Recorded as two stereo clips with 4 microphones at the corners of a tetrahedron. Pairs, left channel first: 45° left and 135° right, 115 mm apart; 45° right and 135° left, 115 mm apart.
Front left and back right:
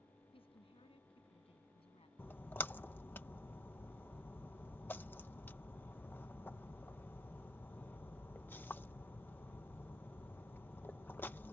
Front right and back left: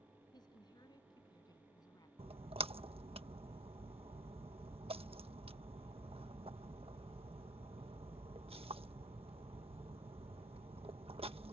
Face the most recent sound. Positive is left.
turn(degrees=115)